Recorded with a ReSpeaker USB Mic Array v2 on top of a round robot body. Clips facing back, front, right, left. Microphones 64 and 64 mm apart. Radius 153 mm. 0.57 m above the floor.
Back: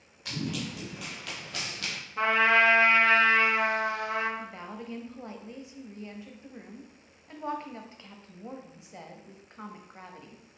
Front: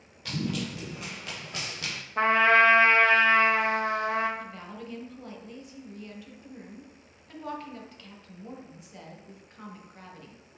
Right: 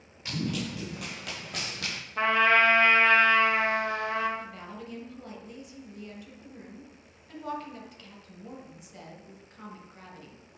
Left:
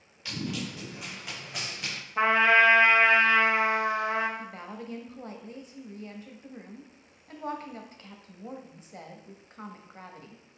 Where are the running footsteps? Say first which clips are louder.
Front 2 dB, right 2 dB; 25° right, 0.6 m; by 2.0 s 75° right, 1.2 m.